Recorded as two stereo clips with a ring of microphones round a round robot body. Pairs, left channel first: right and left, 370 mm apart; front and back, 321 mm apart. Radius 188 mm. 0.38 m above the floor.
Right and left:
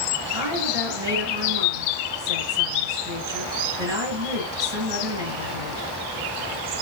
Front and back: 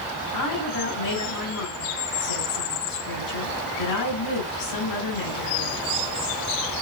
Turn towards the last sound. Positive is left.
turn(degrees=10)